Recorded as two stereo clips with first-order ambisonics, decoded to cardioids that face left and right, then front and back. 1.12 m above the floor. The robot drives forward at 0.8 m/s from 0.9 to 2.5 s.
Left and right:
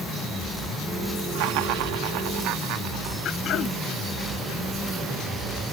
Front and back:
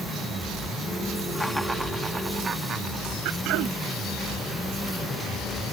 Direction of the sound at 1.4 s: 85° right.